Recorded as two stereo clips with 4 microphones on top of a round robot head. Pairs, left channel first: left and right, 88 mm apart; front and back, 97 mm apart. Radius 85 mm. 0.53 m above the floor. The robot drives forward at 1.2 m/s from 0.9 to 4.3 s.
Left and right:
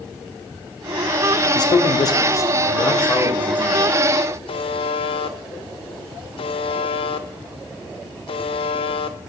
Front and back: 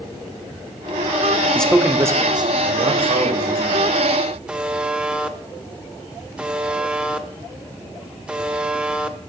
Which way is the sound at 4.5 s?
100° left.